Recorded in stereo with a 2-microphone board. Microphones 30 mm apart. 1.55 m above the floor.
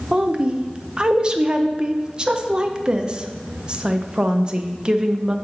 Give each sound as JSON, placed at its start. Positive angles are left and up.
{"t": 0.1, "sound": "a woman speaking", "side_deg": -25, "distance_m": 0.6}